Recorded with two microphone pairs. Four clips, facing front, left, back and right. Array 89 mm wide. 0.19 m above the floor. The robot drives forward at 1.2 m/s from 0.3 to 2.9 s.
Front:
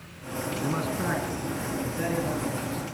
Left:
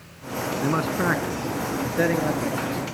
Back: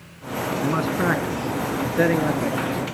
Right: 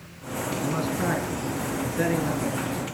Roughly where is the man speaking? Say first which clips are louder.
Left 4 dB, back 7 dB; behind left.